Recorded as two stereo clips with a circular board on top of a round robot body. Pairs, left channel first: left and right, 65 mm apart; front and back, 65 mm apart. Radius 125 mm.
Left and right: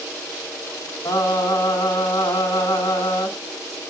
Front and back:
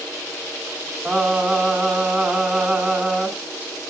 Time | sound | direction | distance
1.1 | singing | 100° left | 2.5 m